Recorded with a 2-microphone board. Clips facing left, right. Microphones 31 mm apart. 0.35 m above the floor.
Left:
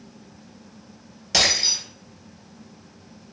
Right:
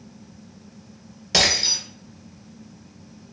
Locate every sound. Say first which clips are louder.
1.3 s breaking glass: right 1 dB; 5° right (ahead or behind), 1.7 m